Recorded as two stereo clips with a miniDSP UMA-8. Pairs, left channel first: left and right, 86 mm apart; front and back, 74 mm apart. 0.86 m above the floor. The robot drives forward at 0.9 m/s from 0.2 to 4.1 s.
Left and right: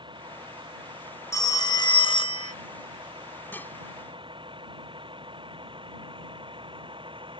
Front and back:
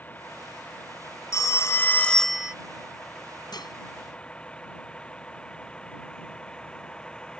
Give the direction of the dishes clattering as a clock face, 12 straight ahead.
11 o'clock.